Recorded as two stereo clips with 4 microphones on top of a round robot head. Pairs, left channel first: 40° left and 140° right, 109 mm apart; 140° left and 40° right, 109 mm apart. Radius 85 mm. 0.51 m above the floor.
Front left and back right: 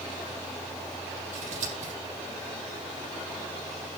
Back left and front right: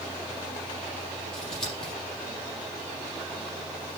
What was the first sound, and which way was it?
Scissors, 135° right.